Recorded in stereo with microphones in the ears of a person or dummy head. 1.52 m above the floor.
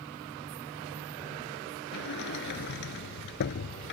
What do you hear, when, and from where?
1.9 s a sliding door: 60° left (ahead or behind)